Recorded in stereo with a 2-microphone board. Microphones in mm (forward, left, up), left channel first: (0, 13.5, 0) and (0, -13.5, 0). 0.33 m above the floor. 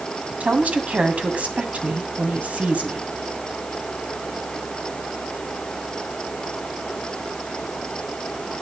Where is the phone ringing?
No phone ringing in this recording.